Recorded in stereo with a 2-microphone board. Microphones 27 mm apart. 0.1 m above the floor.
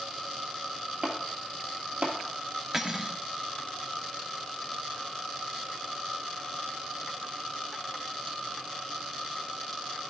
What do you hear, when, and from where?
1.0 s chopping: 60° right (ahead or behind), 1.8 m
2.7 s cutlery clinking: 15° right (ahead or behind), 0.8 m